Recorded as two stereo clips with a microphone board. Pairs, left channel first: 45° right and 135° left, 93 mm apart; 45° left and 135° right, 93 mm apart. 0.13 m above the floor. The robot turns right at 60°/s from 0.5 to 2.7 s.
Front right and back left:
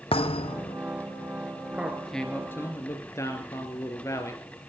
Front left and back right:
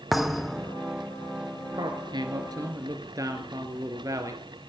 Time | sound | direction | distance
0.1 | a thud | 45° right | 0.7 m
1.7 | a man speaking | 150° right | 2.0 m